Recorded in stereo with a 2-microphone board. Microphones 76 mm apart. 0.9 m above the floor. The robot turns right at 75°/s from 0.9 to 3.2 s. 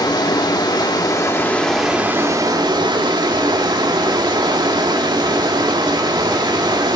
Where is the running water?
115° left, 1.2 m; by 7.0 s 75° right, 1.2 m.